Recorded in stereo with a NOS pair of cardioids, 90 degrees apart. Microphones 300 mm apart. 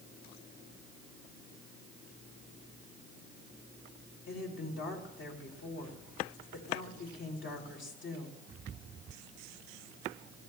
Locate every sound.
4.3 s a woman speaking: 45° left, 3.5 m